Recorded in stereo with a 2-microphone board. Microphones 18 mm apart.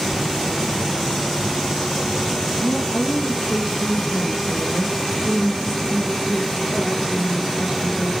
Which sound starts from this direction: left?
A woman speaking, at 2.6 s.